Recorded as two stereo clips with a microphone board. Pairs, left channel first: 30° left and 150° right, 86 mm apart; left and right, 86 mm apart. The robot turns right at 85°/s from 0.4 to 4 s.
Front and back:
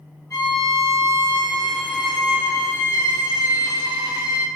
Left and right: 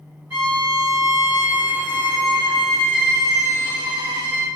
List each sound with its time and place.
0.3 s a violin: 20° right, 1.7 m; by 4.5 s 75° right, 1.7 m